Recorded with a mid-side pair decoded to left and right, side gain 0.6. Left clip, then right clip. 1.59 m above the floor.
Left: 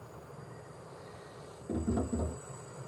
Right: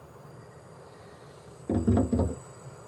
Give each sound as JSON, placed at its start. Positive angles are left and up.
{"t": 1.7, "sound": "tapping", "azimuth_deg": -50, "distance_m": 0.5}